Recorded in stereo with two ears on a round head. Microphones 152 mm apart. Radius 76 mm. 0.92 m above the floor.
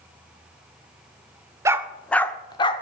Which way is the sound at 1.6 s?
15° right (ahead or behind).